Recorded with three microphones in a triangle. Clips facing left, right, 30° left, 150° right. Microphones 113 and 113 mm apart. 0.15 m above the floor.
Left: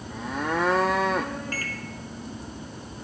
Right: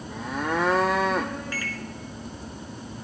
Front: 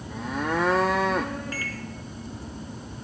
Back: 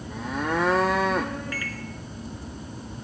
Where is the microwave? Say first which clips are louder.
Right 1 dB, even; 75° left, 1.3 m.